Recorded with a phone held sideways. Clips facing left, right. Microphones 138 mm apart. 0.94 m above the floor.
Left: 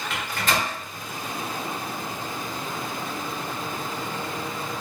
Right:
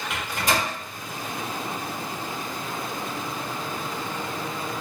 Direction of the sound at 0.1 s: 15° right (ahead or behind).